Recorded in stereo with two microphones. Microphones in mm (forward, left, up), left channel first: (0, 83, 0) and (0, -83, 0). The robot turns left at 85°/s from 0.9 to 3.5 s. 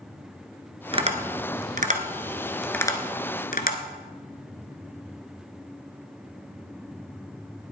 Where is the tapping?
35° right (ahead or behind), 1.4 m; by 3.8 s 60° left (ahead or behind), 1.4 m.